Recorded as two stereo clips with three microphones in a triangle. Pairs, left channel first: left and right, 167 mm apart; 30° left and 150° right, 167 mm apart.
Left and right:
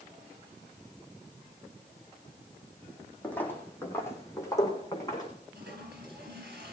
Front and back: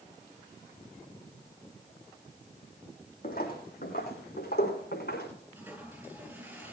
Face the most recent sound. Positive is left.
turn(degrees=-70)